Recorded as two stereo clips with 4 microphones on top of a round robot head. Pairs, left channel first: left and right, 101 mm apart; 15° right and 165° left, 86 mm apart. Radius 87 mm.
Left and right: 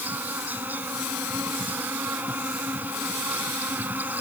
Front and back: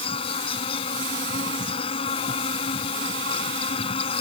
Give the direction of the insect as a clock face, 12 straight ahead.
12 o'clock.